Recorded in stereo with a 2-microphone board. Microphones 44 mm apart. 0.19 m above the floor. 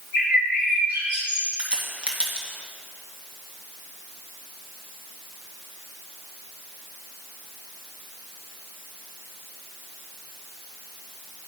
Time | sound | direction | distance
0.1 | a bird | 45° right (ahead or behind) | 3 m
1.6 | a crack | 30° right (ahead or behind) | 1.8 m